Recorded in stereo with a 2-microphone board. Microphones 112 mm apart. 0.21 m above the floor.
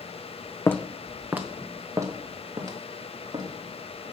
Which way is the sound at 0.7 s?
20° left (ahead or behind).